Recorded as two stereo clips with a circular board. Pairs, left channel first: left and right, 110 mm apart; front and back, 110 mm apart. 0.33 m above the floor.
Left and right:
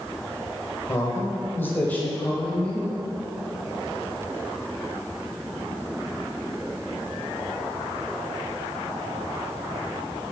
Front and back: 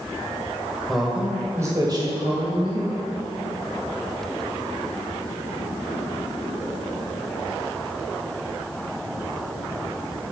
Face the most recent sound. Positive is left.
turn(degrees=170)